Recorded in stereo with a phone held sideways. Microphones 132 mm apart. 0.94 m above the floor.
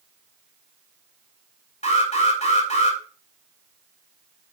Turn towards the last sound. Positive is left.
turn(degrees=50)  # may be behind; listen again after turning